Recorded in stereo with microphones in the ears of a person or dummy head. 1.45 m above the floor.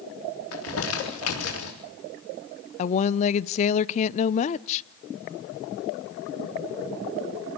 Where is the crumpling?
85° left, 3.5 m.